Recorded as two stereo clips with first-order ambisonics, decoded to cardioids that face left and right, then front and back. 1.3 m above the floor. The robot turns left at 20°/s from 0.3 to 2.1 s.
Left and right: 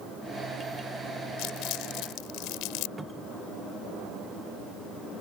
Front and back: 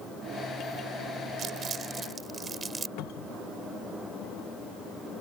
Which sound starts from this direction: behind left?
Crumpling, at 1.4 s.